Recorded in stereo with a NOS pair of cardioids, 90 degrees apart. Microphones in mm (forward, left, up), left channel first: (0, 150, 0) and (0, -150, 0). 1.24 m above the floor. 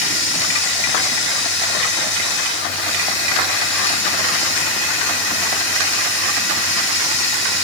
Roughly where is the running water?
Ahead left.